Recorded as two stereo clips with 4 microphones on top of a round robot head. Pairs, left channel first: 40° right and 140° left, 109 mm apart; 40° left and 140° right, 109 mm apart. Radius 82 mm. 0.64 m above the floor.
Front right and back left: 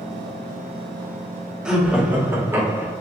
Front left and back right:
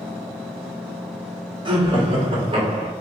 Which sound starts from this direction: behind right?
Laughter, at 1.6 s.